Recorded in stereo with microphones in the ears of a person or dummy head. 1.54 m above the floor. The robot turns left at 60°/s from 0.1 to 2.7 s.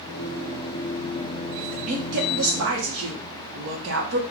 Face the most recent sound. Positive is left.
turn(degrees=-80)